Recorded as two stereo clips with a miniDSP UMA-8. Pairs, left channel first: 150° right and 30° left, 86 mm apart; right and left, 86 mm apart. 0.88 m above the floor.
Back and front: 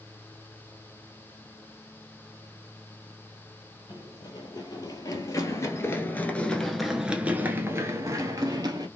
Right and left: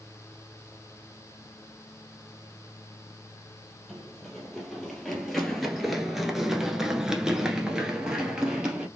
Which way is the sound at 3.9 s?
175° right.